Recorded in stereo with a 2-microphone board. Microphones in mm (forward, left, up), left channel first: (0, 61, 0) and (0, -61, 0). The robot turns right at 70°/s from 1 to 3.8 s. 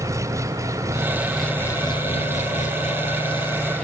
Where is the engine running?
25° right; by 3.8 s 170° left.